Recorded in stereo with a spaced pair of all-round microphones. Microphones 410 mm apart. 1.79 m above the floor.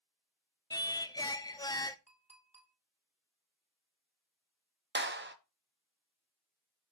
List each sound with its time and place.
0.7 s singing: 10° left (ahead or behind), 0.5 m
2.1 s a clink: 15° right (ahead or behind), 1.9 m
5.0 s a clap: 25° right (ahead or behind), 0.7 m